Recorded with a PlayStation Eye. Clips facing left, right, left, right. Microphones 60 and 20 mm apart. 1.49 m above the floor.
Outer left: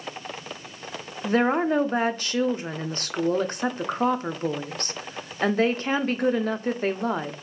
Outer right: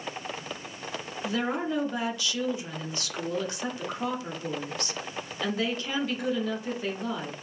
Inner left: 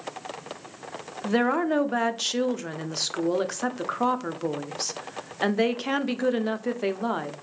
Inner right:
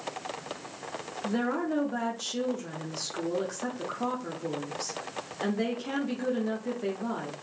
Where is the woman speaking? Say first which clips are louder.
Outer left 8 dB, inner left 6 dB; 45° left (ahead or behind), 0.5 m.